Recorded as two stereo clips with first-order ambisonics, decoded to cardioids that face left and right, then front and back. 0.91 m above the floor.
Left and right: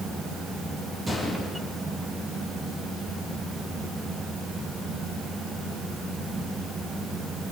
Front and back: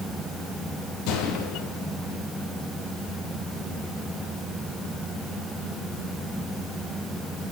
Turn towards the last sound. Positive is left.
turn(degrees=-10)